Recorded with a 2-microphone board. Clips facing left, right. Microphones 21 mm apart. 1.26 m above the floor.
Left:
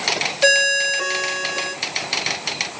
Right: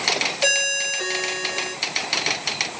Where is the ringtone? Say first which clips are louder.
Left 7 dB; 20° left (ahead or behind), 1.9 m.